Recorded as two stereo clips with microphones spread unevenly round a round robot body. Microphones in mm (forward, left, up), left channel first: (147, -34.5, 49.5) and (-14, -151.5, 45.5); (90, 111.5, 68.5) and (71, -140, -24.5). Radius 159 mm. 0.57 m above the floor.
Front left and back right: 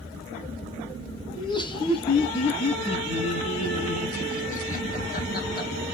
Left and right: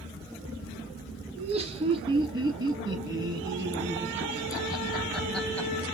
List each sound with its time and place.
1.4 s laughter: 30° right, 5.5 m; by 5.7 s straight ahead, 3.5 m